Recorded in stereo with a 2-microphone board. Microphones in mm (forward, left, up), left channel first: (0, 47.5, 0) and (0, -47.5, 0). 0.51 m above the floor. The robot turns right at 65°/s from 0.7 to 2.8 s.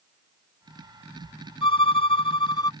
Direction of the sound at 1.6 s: 65° left.